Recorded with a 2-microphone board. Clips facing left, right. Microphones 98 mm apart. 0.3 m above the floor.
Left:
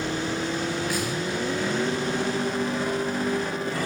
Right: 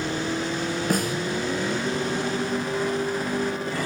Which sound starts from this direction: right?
A snare drum, at 0.9 s.